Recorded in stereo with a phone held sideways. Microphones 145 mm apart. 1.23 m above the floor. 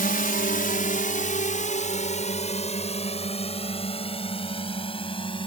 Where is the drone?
70° left (ahead or behind); by 5.5 s 35° left (ahead or behind).